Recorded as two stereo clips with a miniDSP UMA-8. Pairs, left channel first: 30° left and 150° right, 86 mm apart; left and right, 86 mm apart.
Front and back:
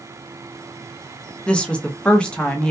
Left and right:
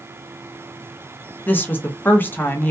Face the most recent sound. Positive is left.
turn(degrees=85)